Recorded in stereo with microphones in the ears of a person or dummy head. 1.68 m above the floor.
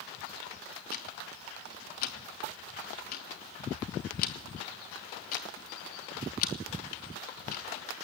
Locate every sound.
0.9 s ticking: 30° left (ahead or behind), 0.9 m